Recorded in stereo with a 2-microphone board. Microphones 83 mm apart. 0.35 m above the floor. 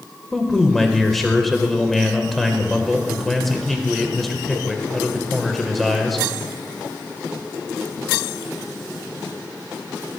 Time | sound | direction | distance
0.3 | a man speaking | centre (ahead or behind) | 1.2 m